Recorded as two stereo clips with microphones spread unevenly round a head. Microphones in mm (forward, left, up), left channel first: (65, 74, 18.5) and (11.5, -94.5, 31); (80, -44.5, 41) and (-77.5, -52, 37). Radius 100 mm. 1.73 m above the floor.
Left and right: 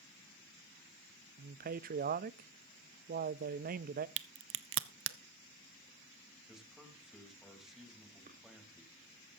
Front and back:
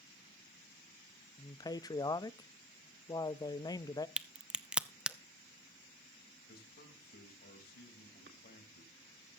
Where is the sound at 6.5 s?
20° right, 3.5 m.